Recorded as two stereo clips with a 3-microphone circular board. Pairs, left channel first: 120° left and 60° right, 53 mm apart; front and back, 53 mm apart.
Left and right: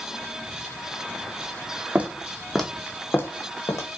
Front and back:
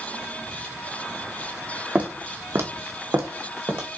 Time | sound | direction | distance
1.9 | footsteps | 115° right | 0.7 m